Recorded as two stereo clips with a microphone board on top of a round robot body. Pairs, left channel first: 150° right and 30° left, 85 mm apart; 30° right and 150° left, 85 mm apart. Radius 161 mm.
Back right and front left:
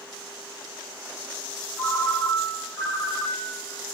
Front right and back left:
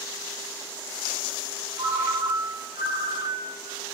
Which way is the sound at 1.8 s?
145° left.